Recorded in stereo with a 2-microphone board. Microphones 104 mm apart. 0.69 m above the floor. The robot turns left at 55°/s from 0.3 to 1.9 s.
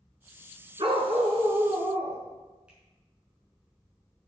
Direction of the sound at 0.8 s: 50° right.